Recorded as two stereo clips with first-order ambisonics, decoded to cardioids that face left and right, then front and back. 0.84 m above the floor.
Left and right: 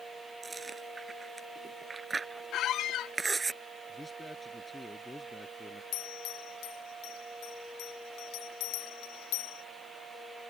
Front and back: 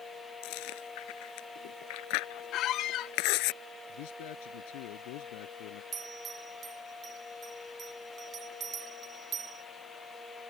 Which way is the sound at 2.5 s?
45° left.